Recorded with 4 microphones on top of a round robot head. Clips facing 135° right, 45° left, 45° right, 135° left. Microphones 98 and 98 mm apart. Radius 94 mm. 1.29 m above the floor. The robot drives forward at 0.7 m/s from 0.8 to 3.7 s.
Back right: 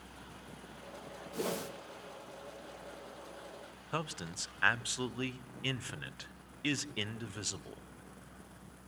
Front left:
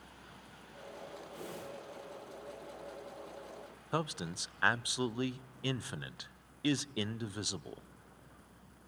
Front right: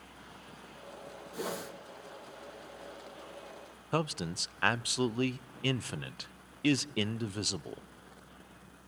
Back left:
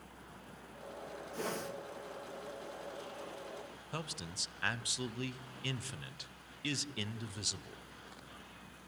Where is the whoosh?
125° right, 1.9 m; by 1.7 s 130° right, 2 m.